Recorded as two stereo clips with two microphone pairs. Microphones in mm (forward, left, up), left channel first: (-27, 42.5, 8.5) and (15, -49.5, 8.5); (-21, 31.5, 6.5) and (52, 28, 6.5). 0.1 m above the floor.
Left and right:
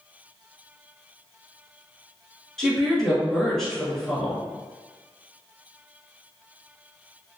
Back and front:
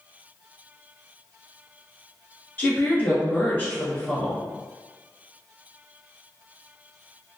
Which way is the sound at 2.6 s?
165° right.